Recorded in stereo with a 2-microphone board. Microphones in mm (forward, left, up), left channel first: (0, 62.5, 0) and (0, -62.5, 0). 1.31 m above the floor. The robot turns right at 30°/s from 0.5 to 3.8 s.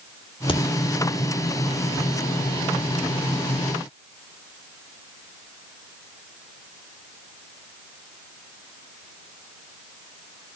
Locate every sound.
0.5 s a crack: 45° left (ahead or behind), 2.5 m; by 0.6 s 40° left (ahead or behind), 2.5 m